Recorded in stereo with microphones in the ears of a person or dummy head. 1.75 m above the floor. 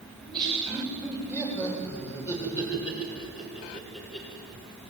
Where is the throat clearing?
I don't hear throat clearing.